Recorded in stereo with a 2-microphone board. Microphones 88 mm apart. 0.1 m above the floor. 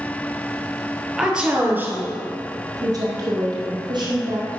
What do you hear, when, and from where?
1.2 s a woman speaking: 5° right (ahead or behind), 2 m; by 4.5 s 65° right (ahead or behind), 3.5 m